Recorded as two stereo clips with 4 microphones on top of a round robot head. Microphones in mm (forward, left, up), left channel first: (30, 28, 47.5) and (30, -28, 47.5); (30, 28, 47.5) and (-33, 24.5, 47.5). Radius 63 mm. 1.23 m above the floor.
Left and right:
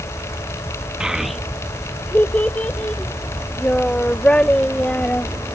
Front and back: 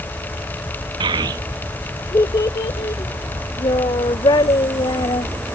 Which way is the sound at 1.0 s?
175° right.